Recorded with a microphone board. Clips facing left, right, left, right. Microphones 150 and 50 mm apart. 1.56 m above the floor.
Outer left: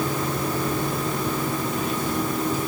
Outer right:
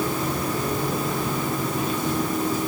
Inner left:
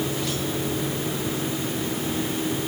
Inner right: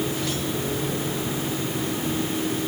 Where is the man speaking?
No man speaking in this recording.